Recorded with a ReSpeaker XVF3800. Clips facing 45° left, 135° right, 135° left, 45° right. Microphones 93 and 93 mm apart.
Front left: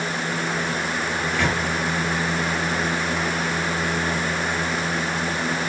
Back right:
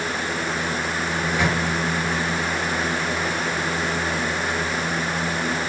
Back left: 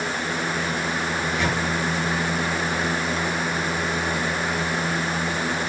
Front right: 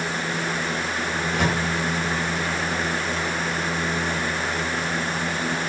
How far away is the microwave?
About 4 m.